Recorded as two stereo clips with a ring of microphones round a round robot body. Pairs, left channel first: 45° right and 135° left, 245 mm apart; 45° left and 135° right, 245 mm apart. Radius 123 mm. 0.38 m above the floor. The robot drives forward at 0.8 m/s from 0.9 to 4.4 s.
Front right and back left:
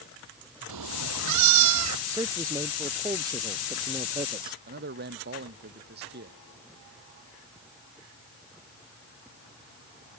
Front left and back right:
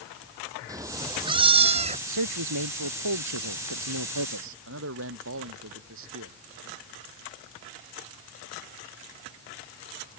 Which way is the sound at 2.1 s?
145° right.